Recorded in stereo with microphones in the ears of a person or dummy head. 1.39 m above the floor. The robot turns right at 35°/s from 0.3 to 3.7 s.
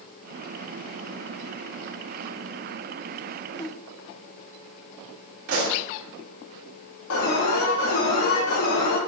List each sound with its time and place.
3.5 s a whoosh: 10° left (ahead or behind), 0.9 m; by 3.8 s 15° left (ahead or behind), 0.9 m
5.5 s a pop: 65° right (ahead or behind), 3 m
7.1 s an alarm: 80° left, 3 m